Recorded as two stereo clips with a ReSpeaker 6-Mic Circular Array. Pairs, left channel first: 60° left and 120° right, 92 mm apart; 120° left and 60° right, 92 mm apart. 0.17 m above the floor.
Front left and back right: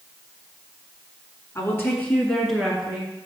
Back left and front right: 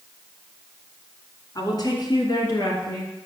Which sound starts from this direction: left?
A woman speaking, at 1.6 s.